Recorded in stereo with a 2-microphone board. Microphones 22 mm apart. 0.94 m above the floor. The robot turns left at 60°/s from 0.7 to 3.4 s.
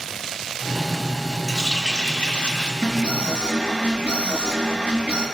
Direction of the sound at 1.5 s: 155° left.